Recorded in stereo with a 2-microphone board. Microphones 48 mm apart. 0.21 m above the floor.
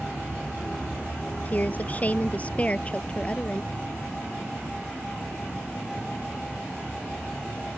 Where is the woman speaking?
35° left (ahead or behind); by 3.7 s 20° left (ahead or behind).